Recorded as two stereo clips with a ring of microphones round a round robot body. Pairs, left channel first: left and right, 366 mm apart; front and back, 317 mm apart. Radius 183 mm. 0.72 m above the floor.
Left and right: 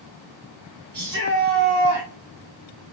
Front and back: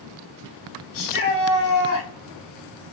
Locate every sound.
0.9 s a shout: 35° right, 1.4 m; by 2.1 s 65° right, 1.4 m